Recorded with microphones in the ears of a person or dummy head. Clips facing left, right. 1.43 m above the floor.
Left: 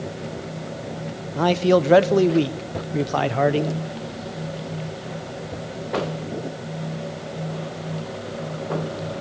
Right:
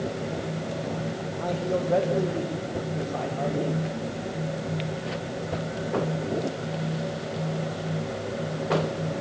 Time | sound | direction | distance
1.4 | a man speaking | 85° left | 0.8 m